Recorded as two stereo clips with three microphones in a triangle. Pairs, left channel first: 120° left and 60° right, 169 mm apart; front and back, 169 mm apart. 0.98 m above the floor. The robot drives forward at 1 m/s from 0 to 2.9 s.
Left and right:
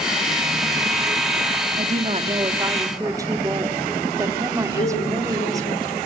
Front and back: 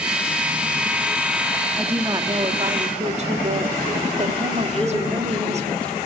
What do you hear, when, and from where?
1.8 s a woman speaking: 100° right, 1.6 m; by 5.7 s 130° right, 2 m
4.7 s a woman speaking: 85° left, 3 m